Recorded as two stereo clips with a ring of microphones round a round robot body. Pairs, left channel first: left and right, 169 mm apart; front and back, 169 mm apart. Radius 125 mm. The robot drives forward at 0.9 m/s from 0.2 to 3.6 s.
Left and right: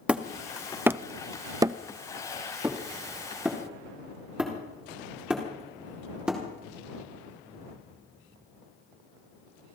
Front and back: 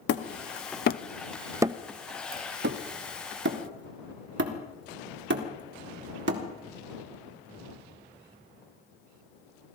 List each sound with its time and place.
0.1 s hammering: 5° right, 1.2 m; by 6.4 s 175° right, 1.9 m